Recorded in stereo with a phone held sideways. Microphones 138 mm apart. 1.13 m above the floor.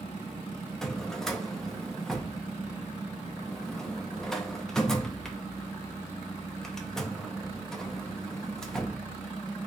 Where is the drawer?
5° left (ahead or behind), 0.5 m.